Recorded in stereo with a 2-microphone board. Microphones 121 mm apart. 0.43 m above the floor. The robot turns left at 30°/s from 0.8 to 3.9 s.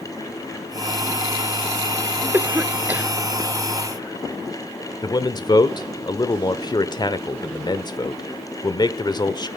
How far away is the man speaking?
About 1.0 m.